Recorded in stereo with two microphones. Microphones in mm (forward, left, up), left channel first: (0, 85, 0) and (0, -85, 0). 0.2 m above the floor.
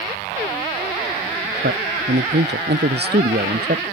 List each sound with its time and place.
1.6 s a man speaking: 80° right; by 3.8 s 60° right (ahead or behind)